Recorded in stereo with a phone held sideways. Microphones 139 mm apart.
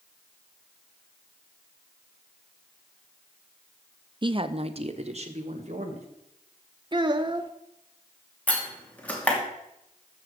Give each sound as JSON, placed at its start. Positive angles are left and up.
{"t": 4.2, "sound": "a woman speaking", "side_deg": -35, "distance_m": 0.6}
{"t": 6.9, "sound": "a child speaking", "side_deg": -35, "distance_m": 0.7}
{"t": 8.5, "sound": "a door slam", "side_deg": 10, "distance_m": 2.5}